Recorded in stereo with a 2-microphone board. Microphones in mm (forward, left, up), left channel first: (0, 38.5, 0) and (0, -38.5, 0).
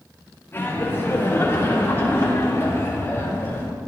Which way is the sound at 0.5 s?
30° left (ahead or behind).